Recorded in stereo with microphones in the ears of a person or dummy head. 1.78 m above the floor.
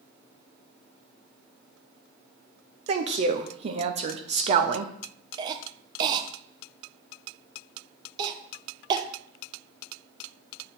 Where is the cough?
30° right (ahead or behind), 0.7 m.